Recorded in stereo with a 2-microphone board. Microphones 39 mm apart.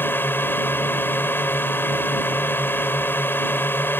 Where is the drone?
65° left (ahead or behind).